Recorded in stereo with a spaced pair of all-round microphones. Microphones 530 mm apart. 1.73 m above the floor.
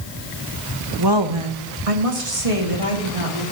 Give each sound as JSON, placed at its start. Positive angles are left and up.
{"t": 1.0, "sound": "a woman speaking", "side_deg": -40, "distance_m": 1.1}